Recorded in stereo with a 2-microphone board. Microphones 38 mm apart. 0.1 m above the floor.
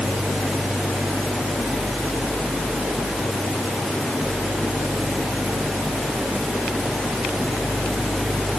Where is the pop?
I don't hear a pop.